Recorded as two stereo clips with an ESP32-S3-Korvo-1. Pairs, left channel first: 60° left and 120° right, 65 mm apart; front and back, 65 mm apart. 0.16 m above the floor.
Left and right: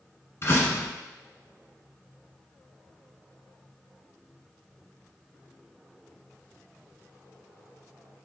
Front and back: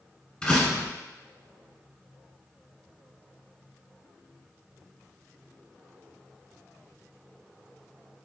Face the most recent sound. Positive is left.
turn(degrees=60)